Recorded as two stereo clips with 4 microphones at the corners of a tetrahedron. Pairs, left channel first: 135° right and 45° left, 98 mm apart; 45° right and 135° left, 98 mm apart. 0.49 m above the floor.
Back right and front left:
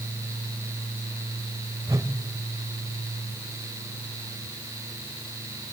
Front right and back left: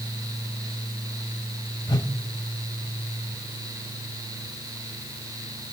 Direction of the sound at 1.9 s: 10° right.